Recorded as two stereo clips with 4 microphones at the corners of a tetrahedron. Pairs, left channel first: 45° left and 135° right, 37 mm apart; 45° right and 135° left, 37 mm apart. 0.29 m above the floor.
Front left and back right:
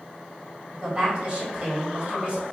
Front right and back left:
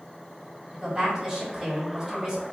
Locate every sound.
0.7 s a woman speaking: 160° right, 1.7 m